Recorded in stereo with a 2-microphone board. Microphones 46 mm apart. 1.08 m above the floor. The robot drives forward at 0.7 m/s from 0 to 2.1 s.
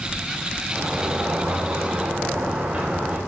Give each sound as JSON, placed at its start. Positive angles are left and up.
{"t": 0.7, "sound": "a sliding door", "side_deg": -45, "distance_m": 3.5}